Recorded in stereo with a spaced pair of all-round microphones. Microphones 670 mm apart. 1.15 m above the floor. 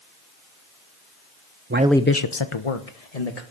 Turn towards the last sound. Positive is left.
turn(degrees=65)  # may be behind; listen again after turning